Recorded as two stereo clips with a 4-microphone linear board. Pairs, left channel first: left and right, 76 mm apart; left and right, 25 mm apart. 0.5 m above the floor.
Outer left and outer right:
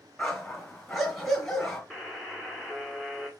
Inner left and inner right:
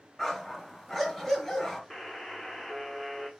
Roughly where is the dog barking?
Centre.